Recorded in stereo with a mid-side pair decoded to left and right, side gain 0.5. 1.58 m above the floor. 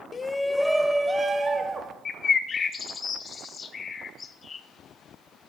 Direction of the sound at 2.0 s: 40° left.